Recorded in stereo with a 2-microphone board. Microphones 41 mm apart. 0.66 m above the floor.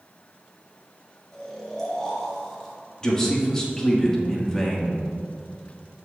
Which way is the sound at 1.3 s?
10° left (ahead or behind).